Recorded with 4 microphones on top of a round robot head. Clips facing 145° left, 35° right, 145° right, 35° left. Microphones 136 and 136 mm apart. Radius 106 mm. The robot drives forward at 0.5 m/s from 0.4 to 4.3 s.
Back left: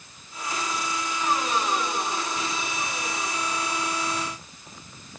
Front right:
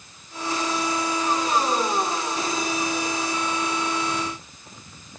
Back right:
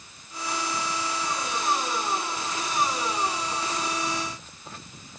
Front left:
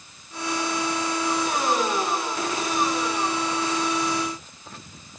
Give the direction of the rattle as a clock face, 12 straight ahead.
No rattle in this recording.